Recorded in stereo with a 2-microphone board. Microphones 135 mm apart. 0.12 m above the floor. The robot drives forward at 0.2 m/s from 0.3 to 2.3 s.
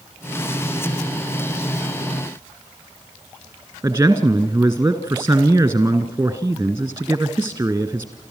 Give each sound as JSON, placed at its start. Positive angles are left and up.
{"t": 3.8, "sound": "a man speaking", "side_deg": -15, "distance_m": 1.6}